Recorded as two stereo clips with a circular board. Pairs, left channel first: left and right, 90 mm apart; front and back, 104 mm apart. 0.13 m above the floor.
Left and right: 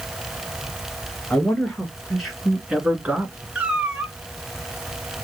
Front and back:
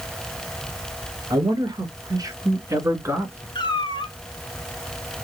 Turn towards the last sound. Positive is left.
turn(degrees=-15)